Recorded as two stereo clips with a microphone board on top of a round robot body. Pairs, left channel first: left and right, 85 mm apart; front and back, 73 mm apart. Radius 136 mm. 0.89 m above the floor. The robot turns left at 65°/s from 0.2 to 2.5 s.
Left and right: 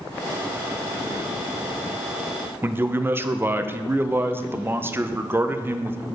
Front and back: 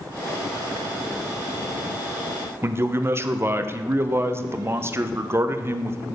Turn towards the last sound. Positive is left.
turn(degrees=-140)